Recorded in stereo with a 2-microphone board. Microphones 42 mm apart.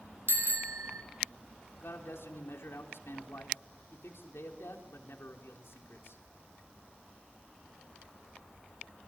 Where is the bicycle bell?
70° right (ahead or behind), 3 m.